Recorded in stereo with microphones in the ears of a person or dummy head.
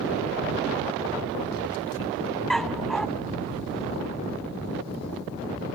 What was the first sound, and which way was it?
A dog barking, centre (ahead or behind).